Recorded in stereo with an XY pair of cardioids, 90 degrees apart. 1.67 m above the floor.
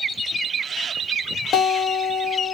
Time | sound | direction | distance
1.5 | a guitar | 70° left | 1.5 m